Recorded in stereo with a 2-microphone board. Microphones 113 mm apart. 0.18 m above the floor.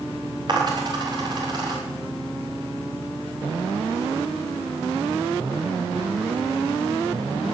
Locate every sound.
0.5 s a dropped coin: 40° right (ahead or behind), 6.5 m